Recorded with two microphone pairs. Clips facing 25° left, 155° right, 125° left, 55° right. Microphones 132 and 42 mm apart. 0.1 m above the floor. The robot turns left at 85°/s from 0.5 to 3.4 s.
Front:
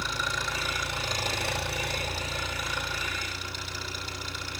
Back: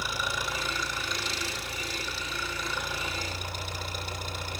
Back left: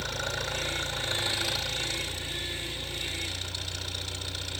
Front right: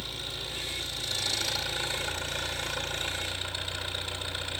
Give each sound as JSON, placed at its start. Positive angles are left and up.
{"t": 0.0, "sound": "an engine running", "azimuth_deg": 125, "distance_m": 5.0}